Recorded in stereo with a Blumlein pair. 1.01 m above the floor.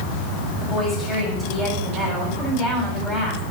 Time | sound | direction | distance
0.6 | a woman speaking | 5° right | 6 m